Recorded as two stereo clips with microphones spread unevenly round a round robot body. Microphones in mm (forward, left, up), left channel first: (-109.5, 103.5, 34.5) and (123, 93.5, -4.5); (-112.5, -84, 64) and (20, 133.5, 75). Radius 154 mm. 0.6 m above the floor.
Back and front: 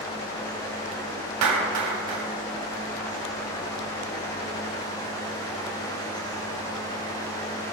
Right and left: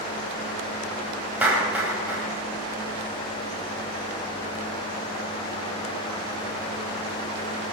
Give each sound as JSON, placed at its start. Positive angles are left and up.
{"t": 1.4, "sound": "a clap", "azimuth_deg": -25, "distance_m": 2.5}